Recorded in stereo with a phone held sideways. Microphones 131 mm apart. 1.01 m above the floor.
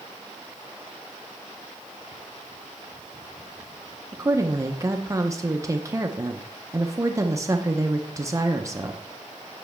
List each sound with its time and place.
4.1 s a woman speaking: 25° right (ahead or behind), 0.5 m